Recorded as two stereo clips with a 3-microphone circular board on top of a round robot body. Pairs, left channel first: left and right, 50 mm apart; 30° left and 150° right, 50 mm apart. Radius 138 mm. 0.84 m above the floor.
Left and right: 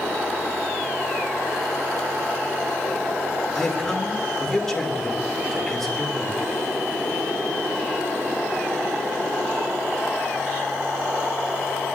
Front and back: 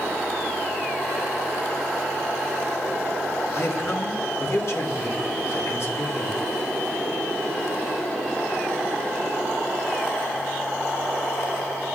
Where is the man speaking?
10° left, 2.5 m.